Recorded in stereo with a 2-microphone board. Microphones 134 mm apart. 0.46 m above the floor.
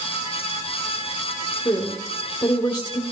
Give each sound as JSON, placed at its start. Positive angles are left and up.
{"t": 1.6, "sound": "a woman speaking", "side_deg": 35, "distance_m": 1.4}